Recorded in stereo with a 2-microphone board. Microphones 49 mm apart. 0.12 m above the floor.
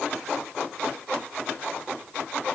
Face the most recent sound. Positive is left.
No sound to turn to.